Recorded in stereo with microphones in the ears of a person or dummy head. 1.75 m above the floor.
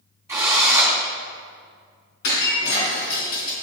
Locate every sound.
0.3 s a drill: 15° right (ahead or behind), 3 m
2.2 s breaking glass: 65° left (ahead or behind), 3.5 m